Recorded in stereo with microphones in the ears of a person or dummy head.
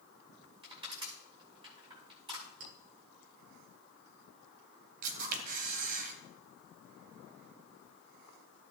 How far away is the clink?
About 3.5 m.